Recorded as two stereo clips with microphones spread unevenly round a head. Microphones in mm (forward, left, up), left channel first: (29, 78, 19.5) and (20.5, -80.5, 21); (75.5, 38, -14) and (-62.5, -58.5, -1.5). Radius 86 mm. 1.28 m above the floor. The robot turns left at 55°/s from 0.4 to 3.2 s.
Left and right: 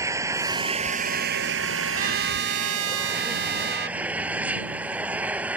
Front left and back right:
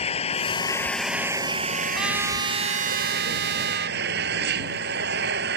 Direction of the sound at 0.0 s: 20° right.